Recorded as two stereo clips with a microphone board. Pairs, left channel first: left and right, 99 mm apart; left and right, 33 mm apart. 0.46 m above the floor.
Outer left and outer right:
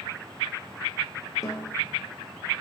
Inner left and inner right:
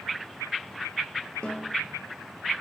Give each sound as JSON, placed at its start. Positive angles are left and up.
{"t": 1.4, "sound": "a snare drum", "side_deg": 35, "distance_m": 4.5}